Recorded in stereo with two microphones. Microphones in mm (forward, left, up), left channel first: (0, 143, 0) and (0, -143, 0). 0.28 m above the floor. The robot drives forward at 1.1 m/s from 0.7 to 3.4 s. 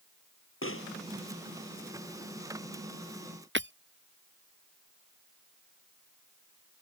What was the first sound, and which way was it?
A pop, 45° left (ahead or behind).